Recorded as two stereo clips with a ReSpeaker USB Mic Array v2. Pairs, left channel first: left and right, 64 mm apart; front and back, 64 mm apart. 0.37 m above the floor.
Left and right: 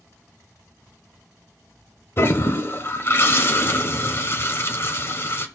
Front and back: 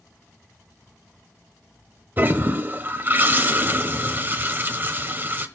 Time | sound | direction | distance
2.2 | a toilet flushing | 130° left | 1.0 m